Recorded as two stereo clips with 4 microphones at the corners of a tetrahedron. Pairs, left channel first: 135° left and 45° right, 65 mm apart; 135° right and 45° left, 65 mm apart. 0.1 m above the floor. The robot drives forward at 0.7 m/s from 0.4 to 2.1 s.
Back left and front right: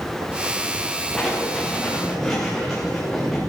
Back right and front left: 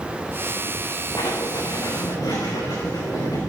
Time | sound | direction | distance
1.2 | writing | 135° right | 6.5 m